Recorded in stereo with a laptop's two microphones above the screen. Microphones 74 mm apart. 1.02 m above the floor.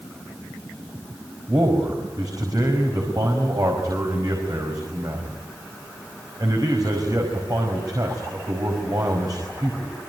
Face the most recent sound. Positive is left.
turn(degrees=-50)  # may be behind; listen again after turning